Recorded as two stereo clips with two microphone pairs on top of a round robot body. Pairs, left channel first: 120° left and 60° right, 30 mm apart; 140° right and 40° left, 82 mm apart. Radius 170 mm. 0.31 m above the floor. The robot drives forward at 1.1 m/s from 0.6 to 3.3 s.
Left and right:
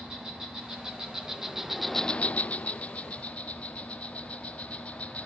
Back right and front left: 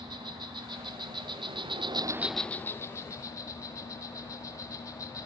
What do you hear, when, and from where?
0.0 s an insect: 10° left, 1.7 m; by 5.3 s 170° left, 1.4 m